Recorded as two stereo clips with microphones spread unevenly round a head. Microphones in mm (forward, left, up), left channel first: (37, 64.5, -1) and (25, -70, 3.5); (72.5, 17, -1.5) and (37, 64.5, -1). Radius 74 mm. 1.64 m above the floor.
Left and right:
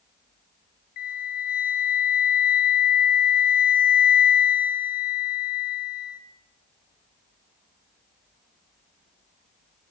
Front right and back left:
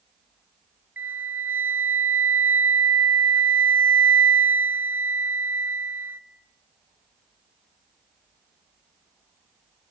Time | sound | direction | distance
1.0 | a flute | 65° left | 1.2 m